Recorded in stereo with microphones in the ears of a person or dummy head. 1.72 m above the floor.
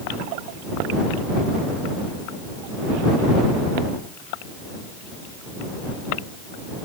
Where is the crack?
No crack in this recording.